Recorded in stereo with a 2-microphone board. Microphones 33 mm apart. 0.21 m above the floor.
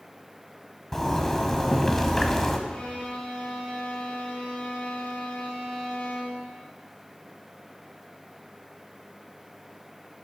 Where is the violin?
75° left (ahead or behind), 4.5 m.